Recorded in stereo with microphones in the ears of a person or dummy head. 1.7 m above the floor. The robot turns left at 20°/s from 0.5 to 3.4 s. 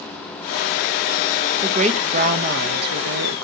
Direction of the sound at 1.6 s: 35° right.